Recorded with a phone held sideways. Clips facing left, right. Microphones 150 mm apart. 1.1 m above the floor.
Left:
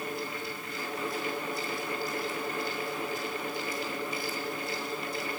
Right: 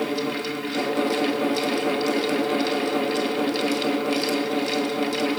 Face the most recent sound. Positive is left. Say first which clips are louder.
# right 11 dB
turn(degrees=-75)  # may be behind; listen again after turning